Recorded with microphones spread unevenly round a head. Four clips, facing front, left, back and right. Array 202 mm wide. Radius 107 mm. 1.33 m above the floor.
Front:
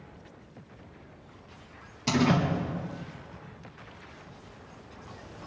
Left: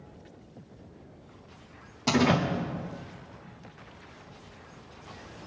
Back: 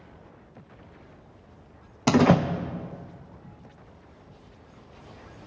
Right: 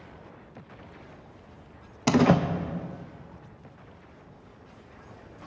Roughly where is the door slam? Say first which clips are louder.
Right 3 dB, back 6 dB; behind right.